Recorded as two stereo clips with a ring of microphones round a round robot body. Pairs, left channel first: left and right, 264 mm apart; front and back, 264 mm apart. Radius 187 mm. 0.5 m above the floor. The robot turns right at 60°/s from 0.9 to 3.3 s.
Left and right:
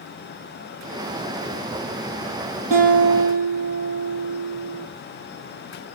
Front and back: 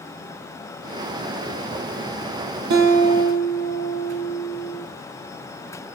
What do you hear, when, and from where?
2.7 s a guitar: 165° left, 4.5 m; by 4.9 s 160° right, 4.5 m